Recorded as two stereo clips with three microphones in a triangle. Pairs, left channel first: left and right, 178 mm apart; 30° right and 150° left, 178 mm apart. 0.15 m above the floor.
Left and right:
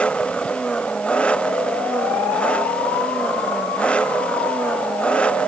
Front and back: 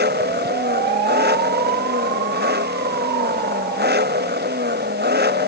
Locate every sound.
0.0 s an engine running: 175° left